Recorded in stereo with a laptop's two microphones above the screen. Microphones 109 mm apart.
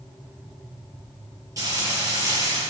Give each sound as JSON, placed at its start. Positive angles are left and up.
{"t": 1.6, "sound": "frying", "side_deg": -30, "distance_m": 4.5}